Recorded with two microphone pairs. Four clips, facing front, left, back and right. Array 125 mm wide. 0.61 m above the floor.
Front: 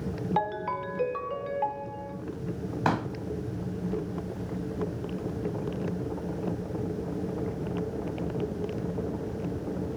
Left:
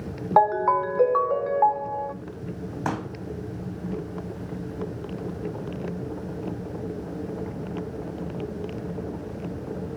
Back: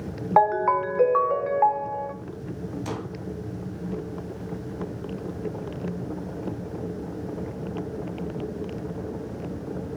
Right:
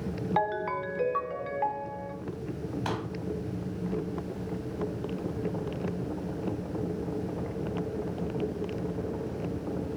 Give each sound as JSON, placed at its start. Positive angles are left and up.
{"t": 0.4, "sound": "a ringtone", "azimuth_deg": 125, "distance_m": 0.6}
{"t": 2.9, "sound": "a pop", "azimuth_deg": 20, "distance_m": 1.8}